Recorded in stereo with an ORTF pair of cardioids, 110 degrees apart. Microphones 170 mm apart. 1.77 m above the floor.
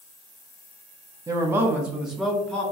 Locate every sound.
1.3 s a man speaking: 25° right, 0.8 m; by 2.6 s 5° left, 1.3 m